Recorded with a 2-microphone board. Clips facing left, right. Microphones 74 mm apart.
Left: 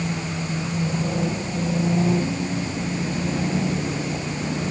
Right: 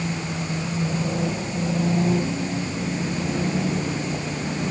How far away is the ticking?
I don't hear ticking.